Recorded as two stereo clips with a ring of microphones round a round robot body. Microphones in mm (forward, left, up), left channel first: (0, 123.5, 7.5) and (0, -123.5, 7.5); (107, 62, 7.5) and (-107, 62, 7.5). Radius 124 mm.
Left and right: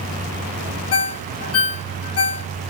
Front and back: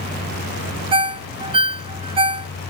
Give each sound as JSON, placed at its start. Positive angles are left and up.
{"t": 0.9, "sound": "a ringtone", "azimuth_deg": 115, "distance_m": 0.7}